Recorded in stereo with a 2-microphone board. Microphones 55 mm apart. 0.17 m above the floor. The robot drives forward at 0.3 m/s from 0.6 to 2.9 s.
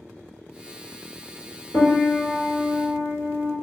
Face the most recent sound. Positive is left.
turn(degrees=65)  # may be behind; listen again after turning